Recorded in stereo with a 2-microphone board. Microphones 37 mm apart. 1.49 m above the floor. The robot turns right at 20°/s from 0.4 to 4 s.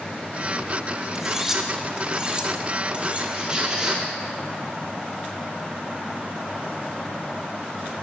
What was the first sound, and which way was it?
Cutlery clinking, 10° right (ahead or behind).